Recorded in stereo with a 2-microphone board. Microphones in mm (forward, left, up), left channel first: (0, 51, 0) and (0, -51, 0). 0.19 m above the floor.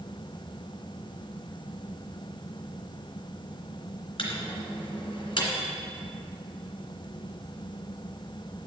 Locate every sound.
4.2 s a microwave: 50° left (ahead or behind), 2.0 m